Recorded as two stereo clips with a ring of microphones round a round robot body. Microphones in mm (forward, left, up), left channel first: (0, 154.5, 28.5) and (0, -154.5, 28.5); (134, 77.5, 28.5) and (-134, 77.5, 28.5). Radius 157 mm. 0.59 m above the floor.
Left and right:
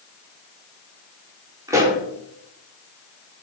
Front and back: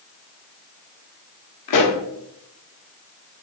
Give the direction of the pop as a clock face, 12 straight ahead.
12 o'clock.